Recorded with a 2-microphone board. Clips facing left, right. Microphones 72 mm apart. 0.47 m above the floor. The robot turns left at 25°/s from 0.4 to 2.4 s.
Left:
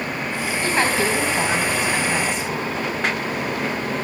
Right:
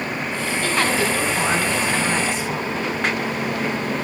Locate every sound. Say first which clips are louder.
0.6 s a woman speaking: left 1 dB; 40° left, 3.5 m; by 2.7 s 5° right, 3.5 m